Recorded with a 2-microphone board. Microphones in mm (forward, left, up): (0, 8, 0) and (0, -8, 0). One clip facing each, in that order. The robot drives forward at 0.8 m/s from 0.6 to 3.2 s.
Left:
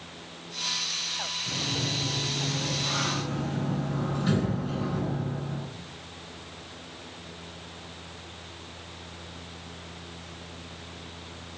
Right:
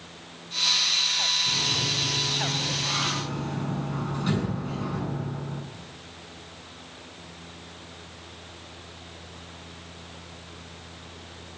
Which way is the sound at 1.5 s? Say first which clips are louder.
Right 5 dB; 25° right (ahead or behind).